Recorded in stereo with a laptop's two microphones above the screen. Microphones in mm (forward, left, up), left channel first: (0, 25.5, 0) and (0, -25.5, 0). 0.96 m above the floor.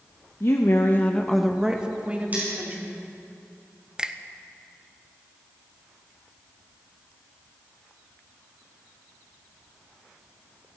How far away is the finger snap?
About 0.7 m.